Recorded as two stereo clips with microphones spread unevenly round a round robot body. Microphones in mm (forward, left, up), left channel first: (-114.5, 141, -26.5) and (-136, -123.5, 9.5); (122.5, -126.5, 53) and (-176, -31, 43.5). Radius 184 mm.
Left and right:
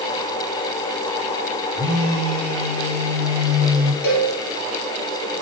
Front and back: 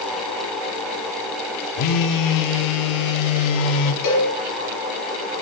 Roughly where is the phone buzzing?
Ahead right.